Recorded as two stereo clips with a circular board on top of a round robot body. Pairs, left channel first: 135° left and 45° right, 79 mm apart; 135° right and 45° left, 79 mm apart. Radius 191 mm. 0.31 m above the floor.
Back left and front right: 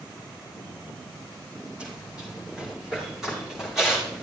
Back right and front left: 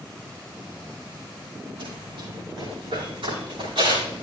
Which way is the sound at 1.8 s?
30° left.